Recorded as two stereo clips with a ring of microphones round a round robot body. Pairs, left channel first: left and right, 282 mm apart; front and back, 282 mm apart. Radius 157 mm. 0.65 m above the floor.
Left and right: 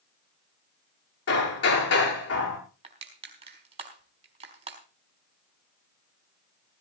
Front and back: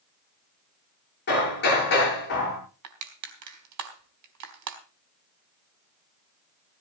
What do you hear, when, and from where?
1.3 s hammering: 60° left, 8.5 m
2.8 s crushing: 160° right, 4 m